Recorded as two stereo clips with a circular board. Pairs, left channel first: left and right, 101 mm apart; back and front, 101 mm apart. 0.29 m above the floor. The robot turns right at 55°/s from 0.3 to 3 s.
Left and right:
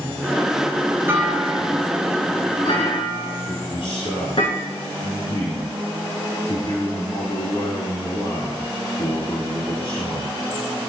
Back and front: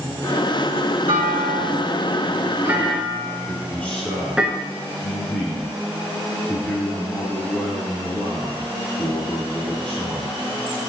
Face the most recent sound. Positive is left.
turn(degrees=105)